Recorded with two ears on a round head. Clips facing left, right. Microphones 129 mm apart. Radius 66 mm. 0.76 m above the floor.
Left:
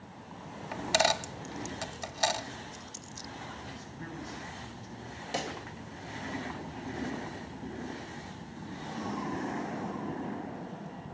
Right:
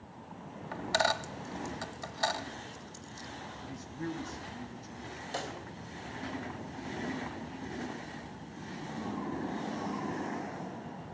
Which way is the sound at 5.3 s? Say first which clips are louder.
Left 3 dB; 20° left (ahead or behind).